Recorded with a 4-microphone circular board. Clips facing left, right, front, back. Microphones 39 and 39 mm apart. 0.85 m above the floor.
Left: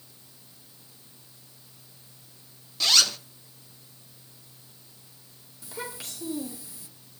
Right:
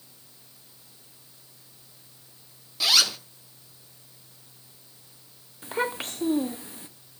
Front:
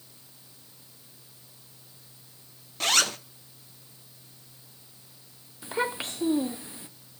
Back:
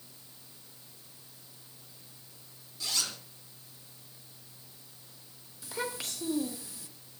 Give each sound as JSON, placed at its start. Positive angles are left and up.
{"t": 2.8, "sound": "a zipper", "azimuth_deg": -5, "distance_m": 0.7}
{"t": 5.6, "sound": "a child speaking", "azimuth_deg": -55, "distance_m": 0.8}